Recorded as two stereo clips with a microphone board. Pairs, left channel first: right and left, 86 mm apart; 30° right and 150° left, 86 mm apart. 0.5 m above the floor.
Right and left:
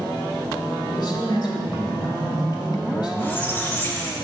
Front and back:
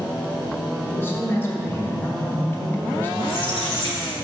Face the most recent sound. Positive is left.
turn(degrees=-25)